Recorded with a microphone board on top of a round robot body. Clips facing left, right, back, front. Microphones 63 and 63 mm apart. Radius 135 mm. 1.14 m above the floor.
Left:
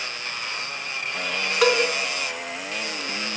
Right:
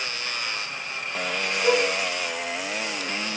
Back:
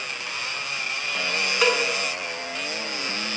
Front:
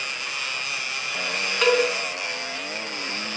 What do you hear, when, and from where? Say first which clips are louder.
1.6 s a cowbell: left 2 dB, front 3 dB; 95° left, 4 m